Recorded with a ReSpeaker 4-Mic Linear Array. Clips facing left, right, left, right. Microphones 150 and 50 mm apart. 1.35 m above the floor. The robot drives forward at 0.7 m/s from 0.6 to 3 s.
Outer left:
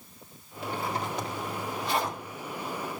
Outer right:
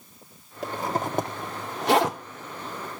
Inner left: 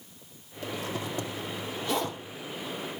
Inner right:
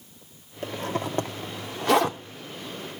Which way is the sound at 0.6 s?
40° right (ahead or behind).